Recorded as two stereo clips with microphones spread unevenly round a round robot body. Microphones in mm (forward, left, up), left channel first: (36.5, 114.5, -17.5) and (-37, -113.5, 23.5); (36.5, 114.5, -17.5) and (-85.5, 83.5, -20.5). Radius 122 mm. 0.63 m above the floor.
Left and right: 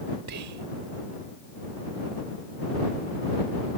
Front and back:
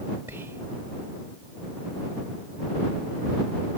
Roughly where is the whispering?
Right.